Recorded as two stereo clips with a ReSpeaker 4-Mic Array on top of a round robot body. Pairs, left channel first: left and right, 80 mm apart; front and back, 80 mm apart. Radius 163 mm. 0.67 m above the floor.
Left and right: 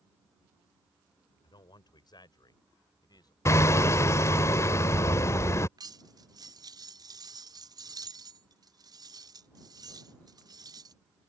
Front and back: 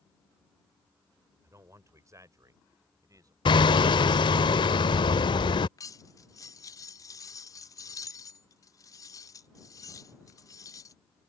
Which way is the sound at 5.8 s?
50° right.